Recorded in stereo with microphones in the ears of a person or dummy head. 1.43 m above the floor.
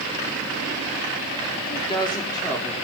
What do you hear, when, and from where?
1.7 s a woman speaking: 25° left (ahead or behind), 4 m; by 2.8 s 10° left (ahead or behind), 4.5 m